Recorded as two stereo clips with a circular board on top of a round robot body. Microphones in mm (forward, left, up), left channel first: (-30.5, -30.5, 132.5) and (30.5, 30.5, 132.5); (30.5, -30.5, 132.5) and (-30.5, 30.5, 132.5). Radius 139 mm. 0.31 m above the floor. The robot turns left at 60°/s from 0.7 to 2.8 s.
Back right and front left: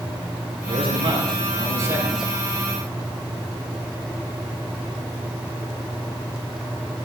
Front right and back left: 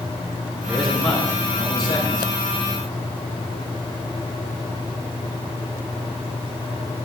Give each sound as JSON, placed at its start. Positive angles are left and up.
{"t": 0.7, "sound": "a man speaking", "azimuth_deg": 50, "distance_m": 6.5}